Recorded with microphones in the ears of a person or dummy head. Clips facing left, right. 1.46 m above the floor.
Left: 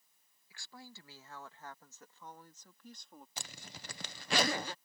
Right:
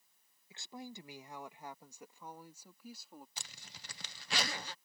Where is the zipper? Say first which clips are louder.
Left 6 dB; 50° left (ahead or behind).